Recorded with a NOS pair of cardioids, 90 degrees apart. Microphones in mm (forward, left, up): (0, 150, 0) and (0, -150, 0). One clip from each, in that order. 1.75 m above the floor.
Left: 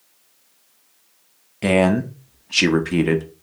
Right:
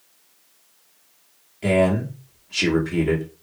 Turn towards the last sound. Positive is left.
turn(degrees=45)